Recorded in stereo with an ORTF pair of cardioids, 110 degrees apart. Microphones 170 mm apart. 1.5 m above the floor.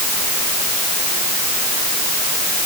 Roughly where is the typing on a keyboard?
I don't hear typing on a keyboard.